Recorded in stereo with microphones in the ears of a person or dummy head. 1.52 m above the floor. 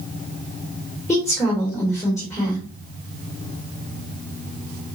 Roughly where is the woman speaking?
Centre.